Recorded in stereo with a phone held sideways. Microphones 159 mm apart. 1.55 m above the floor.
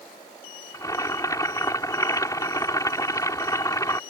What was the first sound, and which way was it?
Boiling, 20° left (ahead or behind).